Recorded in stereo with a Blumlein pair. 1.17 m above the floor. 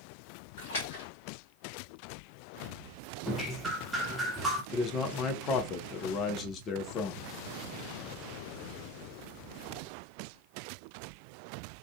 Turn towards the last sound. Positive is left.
turn(degrees=30)